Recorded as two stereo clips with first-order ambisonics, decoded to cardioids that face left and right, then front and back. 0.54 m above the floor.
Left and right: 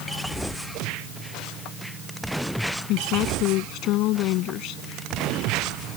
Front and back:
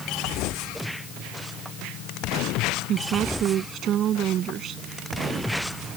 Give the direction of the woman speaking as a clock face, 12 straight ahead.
8 o'clock.